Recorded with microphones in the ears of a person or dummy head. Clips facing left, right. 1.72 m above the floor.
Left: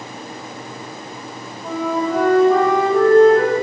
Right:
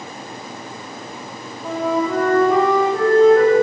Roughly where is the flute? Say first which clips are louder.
Right 1 dB; centre.